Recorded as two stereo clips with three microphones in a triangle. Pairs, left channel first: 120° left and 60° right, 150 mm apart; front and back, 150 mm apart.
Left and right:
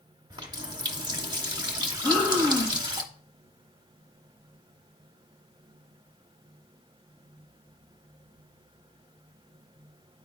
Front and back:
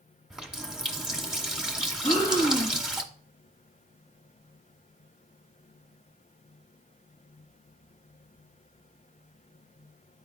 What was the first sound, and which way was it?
A running tap, 95° right.